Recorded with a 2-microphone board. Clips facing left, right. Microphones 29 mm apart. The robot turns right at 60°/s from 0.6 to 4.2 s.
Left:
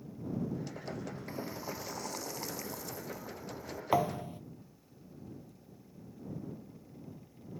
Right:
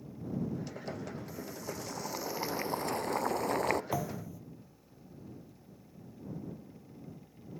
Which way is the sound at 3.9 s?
35° left (ahead or behind).